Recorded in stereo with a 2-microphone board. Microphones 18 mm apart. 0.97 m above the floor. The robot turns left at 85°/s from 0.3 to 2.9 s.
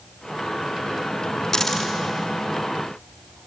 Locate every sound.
1.5 s a dropped coin: 30° left (ahead or behind), 3.5 m; by 1.9 s 5° right (ahead or behind), 3.5 m